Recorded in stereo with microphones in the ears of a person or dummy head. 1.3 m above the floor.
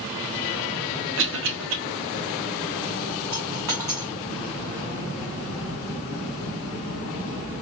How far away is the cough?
About 1.3 m.